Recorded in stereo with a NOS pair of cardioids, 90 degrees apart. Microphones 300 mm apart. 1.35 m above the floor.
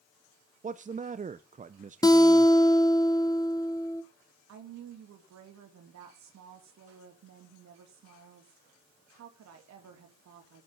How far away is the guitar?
About 1.0 m.